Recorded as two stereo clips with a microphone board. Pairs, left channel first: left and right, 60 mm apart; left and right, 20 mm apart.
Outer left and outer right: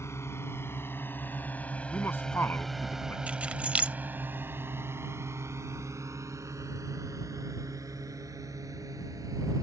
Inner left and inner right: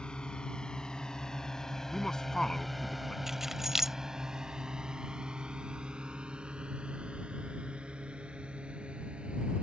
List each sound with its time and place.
0.0 s a drone: 50° left (ahead or behind); by 9.6 s 75° right (ahead or behind)
1.9 s a man speaking: 40° left (ahead or behind)
3.3 s keys jangling: 20° right (ahead or behind)